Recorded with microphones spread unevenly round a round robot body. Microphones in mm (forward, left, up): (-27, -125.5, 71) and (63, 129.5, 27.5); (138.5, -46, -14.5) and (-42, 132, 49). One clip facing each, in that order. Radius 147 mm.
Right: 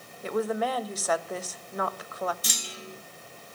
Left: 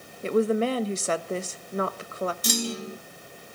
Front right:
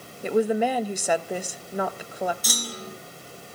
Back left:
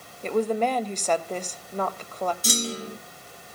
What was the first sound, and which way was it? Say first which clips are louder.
A woman speaking: left 6 dB, front right 2 dB; 25° left.